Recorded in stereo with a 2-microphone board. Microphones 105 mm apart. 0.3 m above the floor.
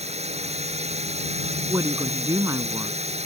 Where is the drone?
75° right (ahead or behind).